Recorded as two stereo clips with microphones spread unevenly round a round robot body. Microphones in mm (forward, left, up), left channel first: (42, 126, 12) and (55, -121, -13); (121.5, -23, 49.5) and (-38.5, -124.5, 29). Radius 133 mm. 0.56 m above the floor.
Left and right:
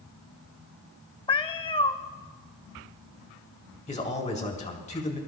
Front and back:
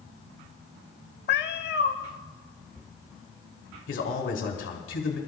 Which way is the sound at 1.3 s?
30° left.